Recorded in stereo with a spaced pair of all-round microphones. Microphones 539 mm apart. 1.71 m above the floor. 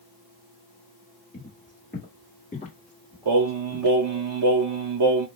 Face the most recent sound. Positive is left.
turn(degrees=-55)  # may be behind; listen again after turning